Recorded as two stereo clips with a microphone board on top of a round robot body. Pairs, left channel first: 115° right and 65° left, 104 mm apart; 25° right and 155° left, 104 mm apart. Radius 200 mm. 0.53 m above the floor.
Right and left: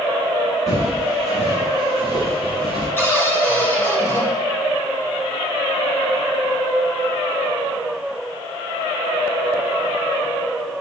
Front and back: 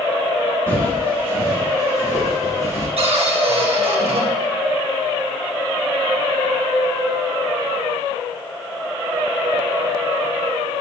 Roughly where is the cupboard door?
Behind.